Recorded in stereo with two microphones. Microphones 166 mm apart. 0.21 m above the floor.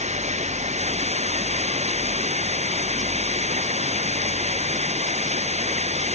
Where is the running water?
45° right (ahead or behind).